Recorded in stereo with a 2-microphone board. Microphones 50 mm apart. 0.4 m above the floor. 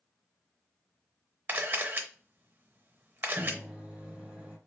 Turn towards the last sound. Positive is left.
turn(degrees=-25)  # may be behind; listen again after turning